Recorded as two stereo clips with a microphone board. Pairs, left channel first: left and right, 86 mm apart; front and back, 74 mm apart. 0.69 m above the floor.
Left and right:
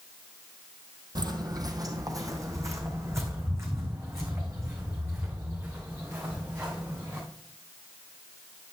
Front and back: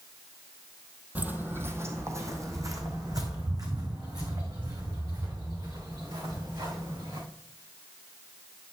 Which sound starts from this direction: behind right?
Footsteps, at 1.1 s.